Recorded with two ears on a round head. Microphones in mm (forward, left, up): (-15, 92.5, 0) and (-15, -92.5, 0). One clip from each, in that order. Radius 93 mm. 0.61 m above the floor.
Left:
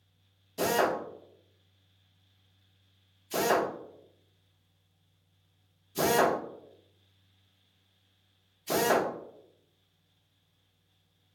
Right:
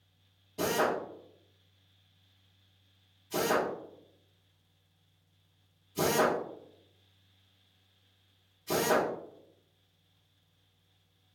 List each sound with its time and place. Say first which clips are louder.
0.6 s a drill: left 2 dB; 55° left (ahead or behind), 1.3 m